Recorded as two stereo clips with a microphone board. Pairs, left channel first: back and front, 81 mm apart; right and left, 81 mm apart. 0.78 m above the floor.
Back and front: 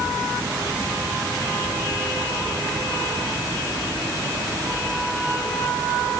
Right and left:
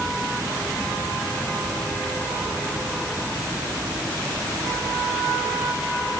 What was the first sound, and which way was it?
Only background noise.